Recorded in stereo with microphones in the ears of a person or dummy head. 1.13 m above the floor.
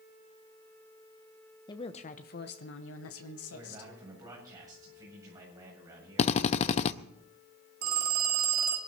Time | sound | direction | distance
1.7 | a woman speaking | 20° left (ahead or behind) | 1.0 m
3.5 | a man speaking | 20° right (ahead or behind) | 8.5 m
6.2 | a drill | 30° left (ahead or behind) | 0.6 m
7.8 | a phone ringing | 50° right (ahead or behind) | 1.8 m